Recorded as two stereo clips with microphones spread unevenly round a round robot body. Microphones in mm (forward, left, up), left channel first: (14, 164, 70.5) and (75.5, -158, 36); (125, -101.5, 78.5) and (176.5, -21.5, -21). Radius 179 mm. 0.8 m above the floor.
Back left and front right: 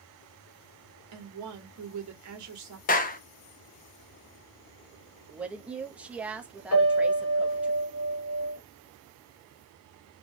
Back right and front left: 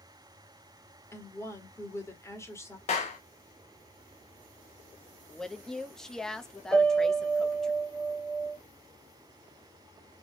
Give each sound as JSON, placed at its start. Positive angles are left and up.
{"t": 1.1, "sound": "a woman speaking", "azimuth_deg": -45, "distance_m": 1.6}
{"t": 2.9, "sound": "a clap", "azimuth_deg": 160, "distance_m": 0.5}
{"t": 5.3, "sound": "a woman speaking", "azimuth_deg": 5, "distance_m": 0.9}
{"t": 6.7, "sound": "a piano", "azimuth_deg": 80, "distance_m": 1.3}